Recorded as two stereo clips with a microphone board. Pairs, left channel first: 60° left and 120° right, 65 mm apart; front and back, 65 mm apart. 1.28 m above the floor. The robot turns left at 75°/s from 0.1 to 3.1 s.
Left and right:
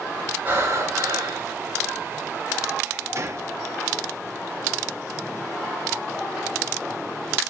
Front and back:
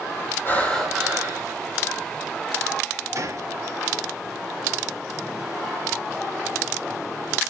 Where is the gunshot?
155° right, 1.0 m.